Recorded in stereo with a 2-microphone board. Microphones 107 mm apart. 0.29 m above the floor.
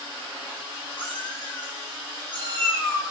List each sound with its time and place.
1.0 s a cat meowing: 10° left (ahead or behind), 1.8 m